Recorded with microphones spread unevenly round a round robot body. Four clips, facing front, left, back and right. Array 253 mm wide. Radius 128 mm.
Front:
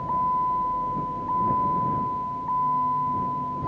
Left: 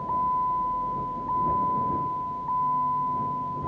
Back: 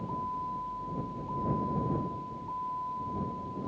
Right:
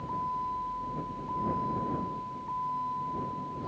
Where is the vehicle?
20° left.